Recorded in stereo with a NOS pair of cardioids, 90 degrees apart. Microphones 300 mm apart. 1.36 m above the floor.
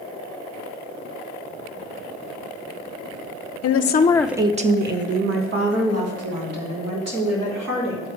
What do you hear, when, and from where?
3.6 s a woman speaking: 55° left, 0.8 m; by 8.1 s 60° right, 4.5 m